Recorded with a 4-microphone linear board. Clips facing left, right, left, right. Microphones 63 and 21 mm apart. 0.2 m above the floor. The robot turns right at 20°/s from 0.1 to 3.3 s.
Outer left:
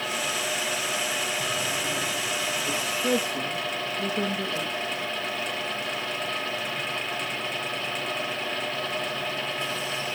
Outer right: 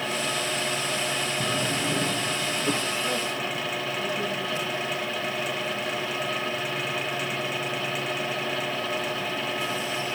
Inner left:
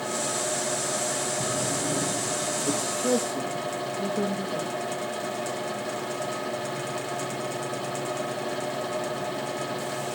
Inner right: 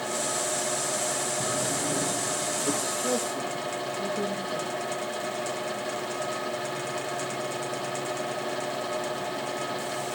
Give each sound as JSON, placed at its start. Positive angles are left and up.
{"t": 1.4, "sound": "a drawer", "side_deg": -45, "distance_m": 4.0}
{"t": 3.0, "sound": "a woman speaking", "side_deg": 70, "distance_m": 7.5}